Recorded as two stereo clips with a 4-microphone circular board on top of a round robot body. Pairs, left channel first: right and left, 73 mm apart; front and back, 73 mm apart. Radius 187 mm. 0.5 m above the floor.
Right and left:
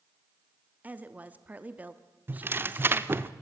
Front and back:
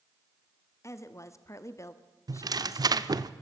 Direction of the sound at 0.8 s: 30° left.